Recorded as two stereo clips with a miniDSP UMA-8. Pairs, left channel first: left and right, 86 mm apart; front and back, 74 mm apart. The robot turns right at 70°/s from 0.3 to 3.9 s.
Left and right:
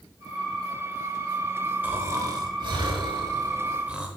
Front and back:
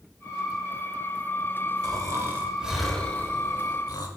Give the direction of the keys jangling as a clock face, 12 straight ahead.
I don't hear keys jangling.